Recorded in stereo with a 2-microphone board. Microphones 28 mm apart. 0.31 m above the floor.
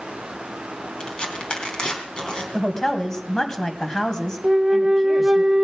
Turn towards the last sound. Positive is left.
turn(degrees=-30)  # may be behind; listen again after turning